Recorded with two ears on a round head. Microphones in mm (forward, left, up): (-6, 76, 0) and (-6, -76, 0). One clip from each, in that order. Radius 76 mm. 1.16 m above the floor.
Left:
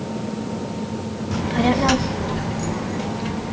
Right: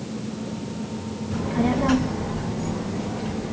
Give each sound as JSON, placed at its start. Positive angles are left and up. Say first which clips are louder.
{"t": 1.3, "sound": "a child speaking", "louder": "left 4 dB", "side_deg": 70, "distance_m": 0.9}